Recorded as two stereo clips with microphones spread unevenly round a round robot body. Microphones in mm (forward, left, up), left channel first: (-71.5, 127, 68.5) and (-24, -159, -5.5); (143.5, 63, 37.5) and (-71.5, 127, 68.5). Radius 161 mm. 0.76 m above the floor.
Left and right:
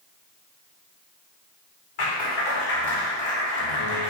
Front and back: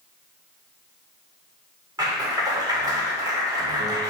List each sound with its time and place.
2.0 s a clap: 90° left, 2.5 m